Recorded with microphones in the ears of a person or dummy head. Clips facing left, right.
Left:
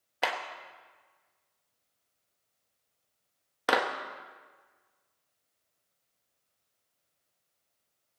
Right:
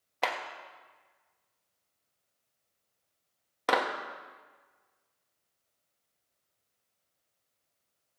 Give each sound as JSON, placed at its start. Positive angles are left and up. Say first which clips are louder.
{"t": 0.2, "sound": "a clap", "louder": "even", "side_deg": 5, "distance_m": 1.2}